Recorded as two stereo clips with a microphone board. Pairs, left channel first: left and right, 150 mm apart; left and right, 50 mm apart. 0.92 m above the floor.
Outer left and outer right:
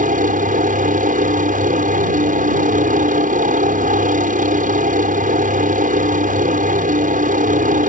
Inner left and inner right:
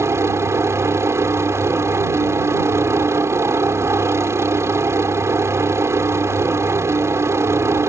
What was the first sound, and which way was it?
A helicopter, 60° right (ahead or behind).